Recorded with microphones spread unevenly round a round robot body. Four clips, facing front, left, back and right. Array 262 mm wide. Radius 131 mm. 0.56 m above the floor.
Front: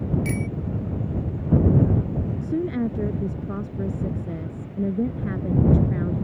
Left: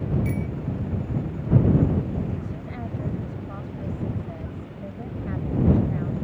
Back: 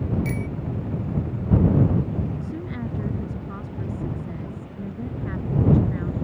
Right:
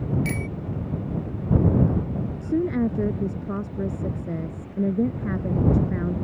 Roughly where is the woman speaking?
Ahead right.